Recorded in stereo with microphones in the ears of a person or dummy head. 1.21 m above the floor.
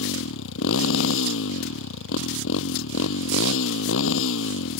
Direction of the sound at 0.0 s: 75° left (ahead or behind).